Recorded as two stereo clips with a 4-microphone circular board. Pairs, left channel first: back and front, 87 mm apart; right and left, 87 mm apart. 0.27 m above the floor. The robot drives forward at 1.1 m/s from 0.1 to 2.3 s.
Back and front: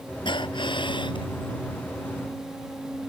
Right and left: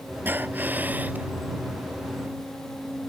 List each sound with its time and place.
0.2 s breathing: 160° left